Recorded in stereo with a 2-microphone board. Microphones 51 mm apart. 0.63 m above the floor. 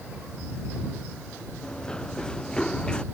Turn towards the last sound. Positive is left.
turn(degrees=15)  # may be behind; listen again after turning